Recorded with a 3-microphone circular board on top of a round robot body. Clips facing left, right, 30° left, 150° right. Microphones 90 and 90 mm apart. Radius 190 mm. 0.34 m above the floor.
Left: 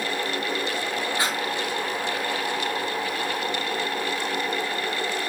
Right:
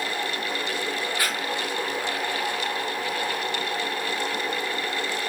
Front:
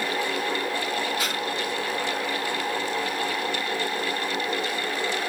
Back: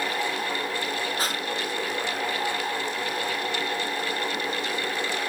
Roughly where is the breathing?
Behind.